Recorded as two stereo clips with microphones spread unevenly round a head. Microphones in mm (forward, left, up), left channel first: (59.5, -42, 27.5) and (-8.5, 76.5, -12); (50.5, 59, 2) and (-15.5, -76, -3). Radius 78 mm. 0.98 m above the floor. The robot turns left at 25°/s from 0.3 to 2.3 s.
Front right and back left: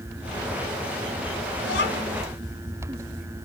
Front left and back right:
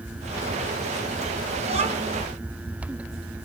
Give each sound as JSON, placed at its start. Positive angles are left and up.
{"t": 1.6, "sound": "a child speaking", "azimuth_deg": -65, "distance_m": 6.0}